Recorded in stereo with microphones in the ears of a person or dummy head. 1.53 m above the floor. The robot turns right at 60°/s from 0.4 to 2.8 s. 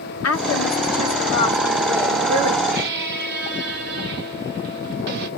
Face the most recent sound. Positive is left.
turn(degrees=-55)  # may be behind; listen again after turning